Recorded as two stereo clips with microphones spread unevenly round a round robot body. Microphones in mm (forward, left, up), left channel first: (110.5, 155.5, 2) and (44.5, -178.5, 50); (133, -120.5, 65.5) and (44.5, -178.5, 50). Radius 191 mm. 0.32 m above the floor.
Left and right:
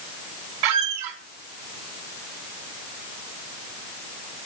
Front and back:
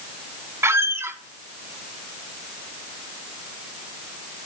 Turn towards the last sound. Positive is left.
turn(degrees=-75)